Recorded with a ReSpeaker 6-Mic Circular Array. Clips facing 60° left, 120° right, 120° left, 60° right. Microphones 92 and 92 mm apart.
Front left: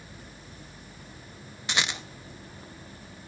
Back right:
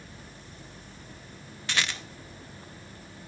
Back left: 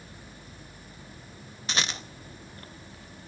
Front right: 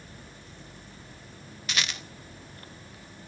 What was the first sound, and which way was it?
A rattle, 115° left.